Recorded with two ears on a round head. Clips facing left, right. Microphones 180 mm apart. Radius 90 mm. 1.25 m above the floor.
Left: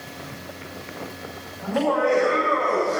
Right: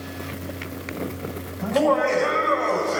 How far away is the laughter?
About 8.5 m.